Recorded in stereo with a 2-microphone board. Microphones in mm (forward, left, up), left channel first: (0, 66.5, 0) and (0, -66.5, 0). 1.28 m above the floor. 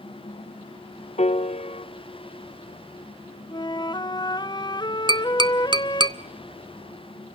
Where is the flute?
35° left (ahead or behind), 0.7 m.